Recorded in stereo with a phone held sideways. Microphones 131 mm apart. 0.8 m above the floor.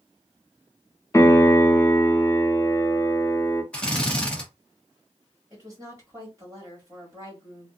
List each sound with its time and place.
1.1 s a piano: 25° left (ahead or behind), 0.5 m
3.7 s a drill: 10° left (ahead or behind), 0.9 m
5.5 s a woman speaking: 25° right (ahead or behind), 1.4 m